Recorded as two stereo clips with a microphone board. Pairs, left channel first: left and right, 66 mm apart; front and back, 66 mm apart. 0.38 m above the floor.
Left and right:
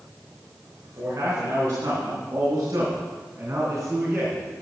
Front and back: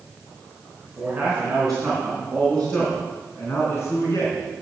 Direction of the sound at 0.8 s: 105° right.